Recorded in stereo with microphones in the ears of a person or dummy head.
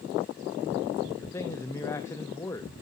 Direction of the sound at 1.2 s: 15° left (ahead or behind).